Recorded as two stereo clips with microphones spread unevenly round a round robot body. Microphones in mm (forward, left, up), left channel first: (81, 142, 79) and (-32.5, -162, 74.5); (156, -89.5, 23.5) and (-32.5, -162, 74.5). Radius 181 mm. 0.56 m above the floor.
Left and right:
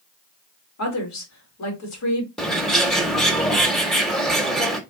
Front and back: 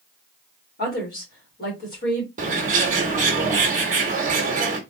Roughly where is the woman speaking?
Ahead left.